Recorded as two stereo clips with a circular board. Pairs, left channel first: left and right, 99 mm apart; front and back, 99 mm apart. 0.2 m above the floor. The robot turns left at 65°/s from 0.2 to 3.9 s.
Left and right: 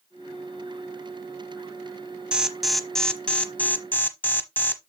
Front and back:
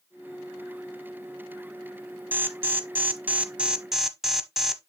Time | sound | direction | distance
2.3 | an alarm | 155° right | 0.9 m